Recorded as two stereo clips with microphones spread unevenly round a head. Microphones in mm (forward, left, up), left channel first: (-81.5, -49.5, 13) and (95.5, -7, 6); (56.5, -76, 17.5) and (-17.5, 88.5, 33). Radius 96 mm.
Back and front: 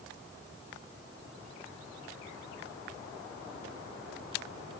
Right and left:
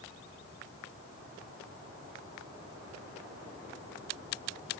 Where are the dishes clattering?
I don't hear dishes clattering.